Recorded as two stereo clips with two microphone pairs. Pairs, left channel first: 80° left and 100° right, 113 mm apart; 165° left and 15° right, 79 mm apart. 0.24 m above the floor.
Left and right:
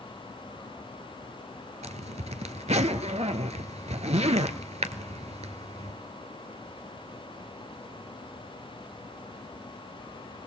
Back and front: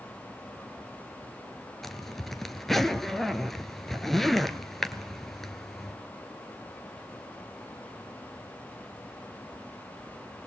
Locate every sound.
1.8 s a zipper: 110° right, 0.8 m